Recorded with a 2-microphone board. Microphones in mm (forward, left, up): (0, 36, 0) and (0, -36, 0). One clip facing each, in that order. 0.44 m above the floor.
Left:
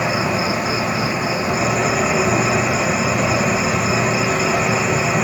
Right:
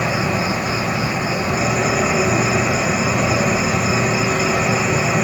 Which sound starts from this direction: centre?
An insect, at 0.0 s.